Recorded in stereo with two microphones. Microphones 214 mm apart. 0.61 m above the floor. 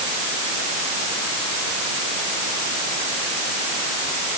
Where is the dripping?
No dripping in this recording.